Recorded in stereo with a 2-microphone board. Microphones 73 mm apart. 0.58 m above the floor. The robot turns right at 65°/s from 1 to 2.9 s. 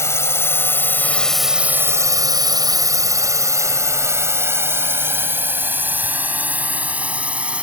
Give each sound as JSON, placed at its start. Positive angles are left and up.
{"t": 0.0, "sound": "a drone", "side_deg": 40}